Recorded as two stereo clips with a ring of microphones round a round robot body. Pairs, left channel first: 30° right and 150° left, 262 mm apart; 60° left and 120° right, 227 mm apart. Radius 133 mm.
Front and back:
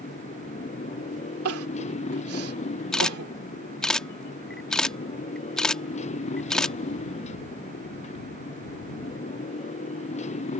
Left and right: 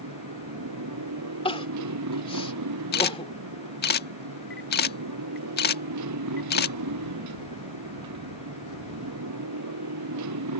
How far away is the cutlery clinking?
No cutlery clinking in this recording.